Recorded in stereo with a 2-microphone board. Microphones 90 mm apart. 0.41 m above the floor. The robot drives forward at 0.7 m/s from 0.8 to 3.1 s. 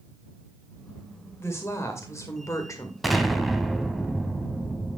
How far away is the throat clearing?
I don't hear throat clearing.